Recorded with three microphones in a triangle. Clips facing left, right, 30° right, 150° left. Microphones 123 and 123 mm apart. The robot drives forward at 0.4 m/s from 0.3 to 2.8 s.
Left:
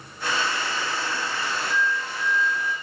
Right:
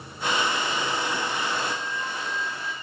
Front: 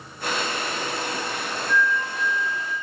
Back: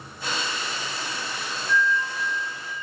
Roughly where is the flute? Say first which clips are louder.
Left 4 dB, even; right.